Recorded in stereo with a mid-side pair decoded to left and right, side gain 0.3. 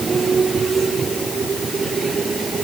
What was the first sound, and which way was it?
Only background noise.